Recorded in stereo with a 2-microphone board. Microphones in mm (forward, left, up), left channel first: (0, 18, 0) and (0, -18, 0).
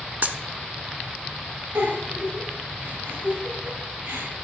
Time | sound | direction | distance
0.2 | a dropped coin | 55° right (ahead or behind) | 0.8 m
1.8 | a giggle | 85° right | 6.5 m